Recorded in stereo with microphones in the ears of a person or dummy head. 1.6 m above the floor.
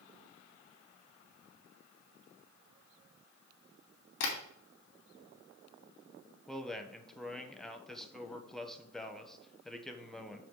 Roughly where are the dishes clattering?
I don't hear dishes clattering.